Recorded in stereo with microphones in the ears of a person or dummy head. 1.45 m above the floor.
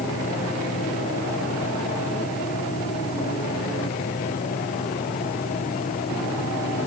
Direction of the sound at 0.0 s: 35° left (ahead or behind).